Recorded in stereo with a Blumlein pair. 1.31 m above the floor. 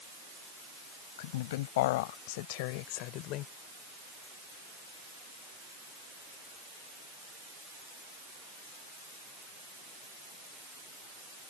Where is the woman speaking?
55° left; by 3.5 s 35° left.